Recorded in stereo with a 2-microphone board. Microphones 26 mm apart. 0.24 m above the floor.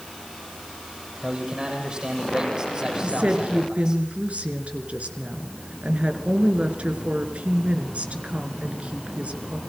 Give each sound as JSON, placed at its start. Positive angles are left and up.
{"t": 1.2, "sound": "a man speaking", "side_deg": -35, "distance_m": 10.0}
{"t": 3.0, "sound": "a woman speaking", "side_deg": -60, "distance_m": 3.0}